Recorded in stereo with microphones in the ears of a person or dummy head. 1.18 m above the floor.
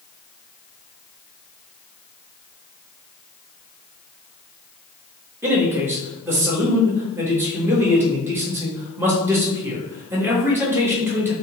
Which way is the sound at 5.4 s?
15° right (ahead or behind).